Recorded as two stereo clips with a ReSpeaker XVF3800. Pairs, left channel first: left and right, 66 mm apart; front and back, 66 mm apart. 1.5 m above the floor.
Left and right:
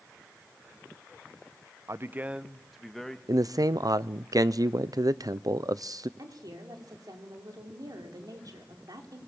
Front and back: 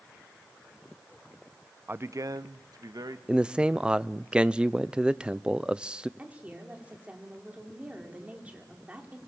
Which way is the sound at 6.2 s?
110° right.